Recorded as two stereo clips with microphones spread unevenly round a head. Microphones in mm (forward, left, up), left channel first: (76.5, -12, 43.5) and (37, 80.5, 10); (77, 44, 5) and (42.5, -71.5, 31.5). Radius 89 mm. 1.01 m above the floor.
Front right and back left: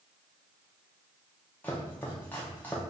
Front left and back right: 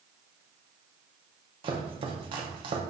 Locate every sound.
1.6 s chopping: 125° right, 0.5 m